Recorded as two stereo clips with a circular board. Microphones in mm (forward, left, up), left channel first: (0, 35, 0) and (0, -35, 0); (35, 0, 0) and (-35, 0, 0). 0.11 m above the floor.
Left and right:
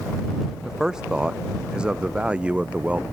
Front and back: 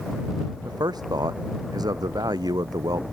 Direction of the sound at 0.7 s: 170° right.